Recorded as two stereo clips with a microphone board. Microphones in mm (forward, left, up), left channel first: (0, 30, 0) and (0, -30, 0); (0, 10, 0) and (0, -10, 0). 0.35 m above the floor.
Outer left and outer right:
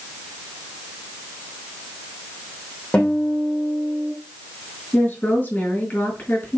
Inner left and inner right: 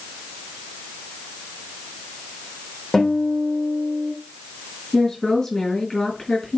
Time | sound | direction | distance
2.9 | a guitar | 15° left (ahead or behind) | 6.5 m
4.9 | a woman speaking | 25° left (ahead or behind) | 6 m